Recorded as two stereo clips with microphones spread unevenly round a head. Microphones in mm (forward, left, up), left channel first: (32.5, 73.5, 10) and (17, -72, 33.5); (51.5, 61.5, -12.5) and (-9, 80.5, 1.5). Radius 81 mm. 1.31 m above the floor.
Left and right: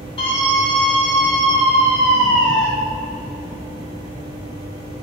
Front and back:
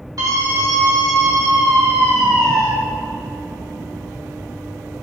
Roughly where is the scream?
Behind left.